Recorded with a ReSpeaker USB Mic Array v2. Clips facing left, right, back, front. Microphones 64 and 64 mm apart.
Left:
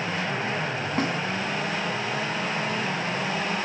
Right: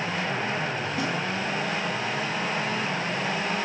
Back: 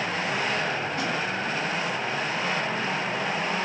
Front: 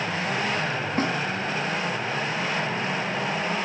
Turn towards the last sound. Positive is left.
turn(degrees=45)